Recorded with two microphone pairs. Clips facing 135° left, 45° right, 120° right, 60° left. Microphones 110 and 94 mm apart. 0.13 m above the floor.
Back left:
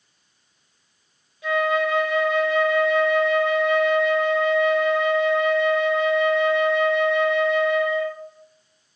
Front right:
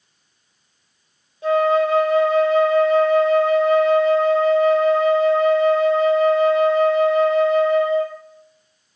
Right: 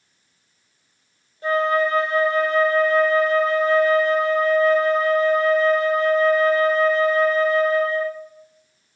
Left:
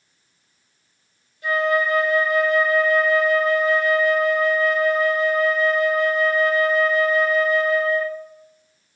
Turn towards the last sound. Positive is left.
turn(degrees=-85)